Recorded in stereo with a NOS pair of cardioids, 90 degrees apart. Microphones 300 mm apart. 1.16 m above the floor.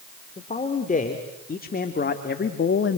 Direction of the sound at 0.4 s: 25° left.